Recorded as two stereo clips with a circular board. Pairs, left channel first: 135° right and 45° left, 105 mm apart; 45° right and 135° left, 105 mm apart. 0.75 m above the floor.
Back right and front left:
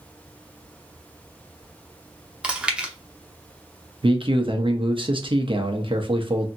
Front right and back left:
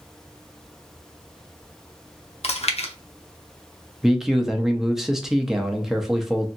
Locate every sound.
2.4 s chewing: 35° right, 0.6 m
4.0 s a man speaking: 50° left, 0.7 m